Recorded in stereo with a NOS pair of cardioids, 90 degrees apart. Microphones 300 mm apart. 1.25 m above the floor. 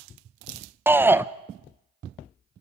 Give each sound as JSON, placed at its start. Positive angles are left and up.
{"t": 0.9, "sound": "a shout", "azimuth_deg": -5, "distance_m": 0.8}